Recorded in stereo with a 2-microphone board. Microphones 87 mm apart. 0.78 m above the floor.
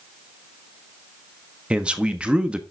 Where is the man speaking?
10° right (ahead or behind), 1.3 m.